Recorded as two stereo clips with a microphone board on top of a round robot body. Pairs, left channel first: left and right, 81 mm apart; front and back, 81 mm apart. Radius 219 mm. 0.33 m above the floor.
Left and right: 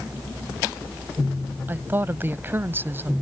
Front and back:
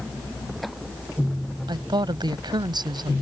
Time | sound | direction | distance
1.7 | a woman speaking | 155° right | ?